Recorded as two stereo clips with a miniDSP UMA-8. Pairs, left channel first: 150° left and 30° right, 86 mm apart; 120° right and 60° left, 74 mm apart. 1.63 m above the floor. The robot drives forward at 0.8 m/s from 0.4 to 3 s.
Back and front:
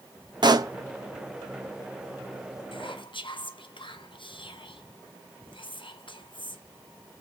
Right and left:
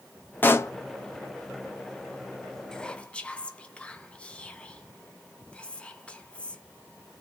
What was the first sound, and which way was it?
A pop, 55° right.